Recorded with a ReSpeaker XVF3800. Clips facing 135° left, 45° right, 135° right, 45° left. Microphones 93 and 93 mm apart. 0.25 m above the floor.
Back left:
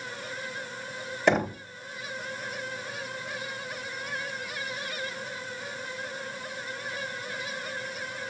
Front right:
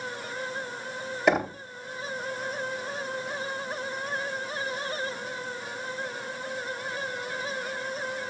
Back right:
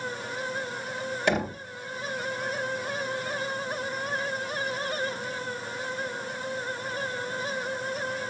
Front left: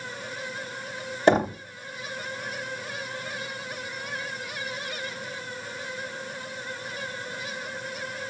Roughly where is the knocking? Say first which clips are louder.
Even, front left 7 dB; ahead left.